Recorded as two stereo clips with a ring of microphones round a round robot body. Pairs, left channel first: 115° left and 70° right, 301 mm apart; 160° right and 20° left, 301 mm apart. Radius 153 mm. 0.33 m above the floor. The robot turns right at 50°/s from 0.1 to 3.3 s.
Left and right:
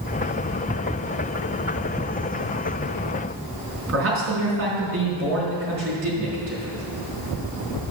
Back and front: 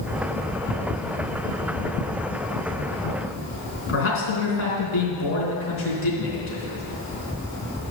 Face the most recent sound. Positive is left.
turn(degrees=-110)